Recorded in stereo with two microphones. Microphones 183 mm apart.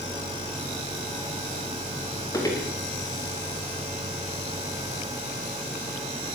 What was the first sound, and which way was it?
Footsteps, 20° left (ahead or behind).